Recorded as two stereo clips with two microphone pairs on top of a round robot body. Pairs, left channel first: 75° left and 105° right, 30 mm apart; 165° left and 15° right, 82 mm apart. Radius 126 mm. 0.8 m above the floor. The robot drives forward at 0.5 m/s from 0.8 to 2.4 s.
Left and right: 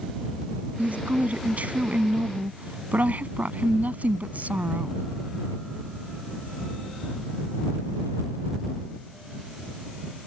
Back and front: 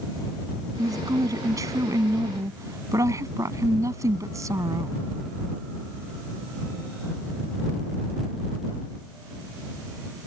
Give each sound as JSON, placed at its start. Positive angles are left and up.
{"t": 0.8, "sound": "a woman speaking", "azimuth_deg": -65}